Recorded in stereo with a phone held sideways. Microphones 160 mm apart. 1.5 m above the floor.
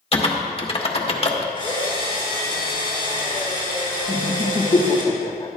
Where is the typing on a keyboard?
35° left (ahead or behind), 1.3 m.